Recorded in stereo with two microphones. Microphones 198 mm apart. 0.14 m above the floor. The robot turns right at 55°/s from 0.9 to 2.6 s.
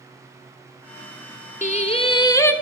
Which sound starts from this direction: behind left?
Singing, at 1.6 s.